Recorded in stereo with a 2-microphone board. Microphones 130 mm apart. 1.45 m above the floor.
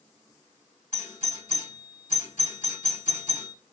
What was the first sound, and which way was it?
A doorbell, 80° left.